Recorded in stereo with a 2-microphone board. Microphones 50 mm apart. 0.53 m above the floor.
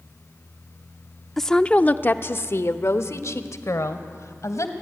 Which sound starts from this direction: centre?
A woman speaking, at 1.4 s.